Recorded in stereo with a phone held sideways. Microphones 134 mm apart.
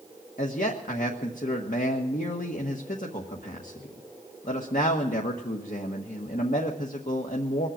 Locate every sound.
0.4 s a man speaking: 70° left (ahead or behind), 1.4 m